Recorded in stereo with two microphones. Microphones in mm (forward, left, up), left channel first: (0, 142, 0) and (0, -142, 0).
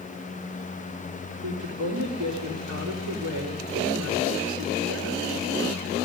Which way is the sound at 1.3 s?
80° right.